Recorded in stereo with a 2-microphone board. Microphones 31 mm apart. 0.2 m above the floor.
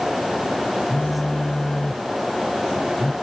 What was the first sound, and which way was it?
A phone buzzing, 25° left (ahead or behind).